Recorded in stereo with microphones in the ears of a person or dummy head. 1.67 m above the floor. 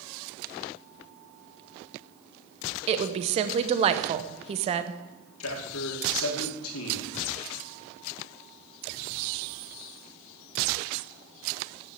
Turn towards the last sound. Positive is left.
turn(degrees=80)